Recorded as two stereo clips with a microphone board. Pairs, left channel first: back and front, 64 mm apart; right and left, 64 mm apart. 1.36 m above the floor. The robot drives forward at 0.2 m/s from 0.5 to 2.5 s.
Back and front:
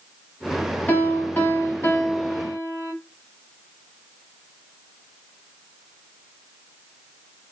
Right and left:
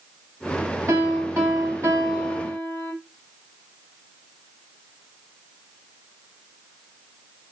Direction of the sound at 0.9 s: 125° left.